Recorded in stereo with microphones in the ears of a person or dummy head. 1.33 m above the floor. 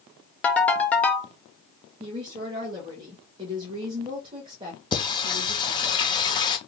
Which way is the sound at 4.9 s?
25° left (ahead or behind).